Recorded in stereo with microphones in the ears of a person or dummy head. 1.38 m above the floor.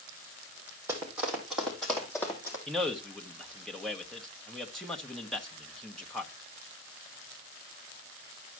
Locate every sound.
0.9 s running footsteps: 10° right (ahead or behind), 3.5 m; by 2.6 s 15° left (ahead or behind), 4 m
2.7 s a man speaking: 5° left (ahead or behind), 1.3 m